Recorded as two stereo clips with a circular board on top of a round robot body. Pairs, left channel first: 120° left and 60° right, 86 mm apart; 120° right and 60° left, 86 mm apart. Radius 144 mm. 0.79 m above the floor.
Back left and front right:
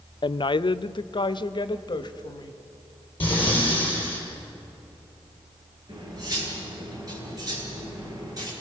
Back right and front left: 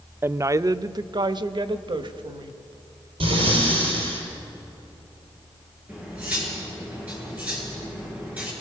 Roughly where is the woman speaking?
Behind left.